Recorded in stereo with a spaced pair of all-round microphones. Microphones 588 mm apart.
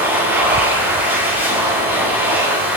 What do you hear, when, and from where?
0.0 s a machine running: 5° right (ahead or behind), 6 m